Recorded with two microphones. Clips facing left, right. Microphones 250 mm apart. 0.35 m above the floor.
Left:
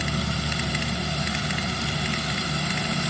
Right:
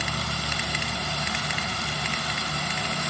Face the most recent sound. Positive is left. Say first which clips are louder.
# left 5 dB
turn(degrees=25)  # may be behind; listen again after turning